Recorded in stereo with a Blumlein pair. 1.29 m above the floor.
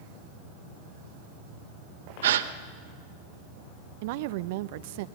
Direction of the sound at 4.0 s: 50° right.